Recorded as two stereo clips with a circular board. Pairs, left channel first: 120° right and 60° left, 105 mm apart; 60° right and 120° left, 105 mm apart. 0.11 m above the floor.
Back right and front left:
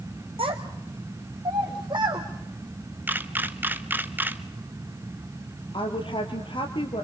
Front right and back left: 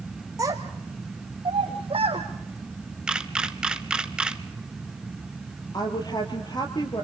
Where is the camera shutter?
55° left, 1.0 m.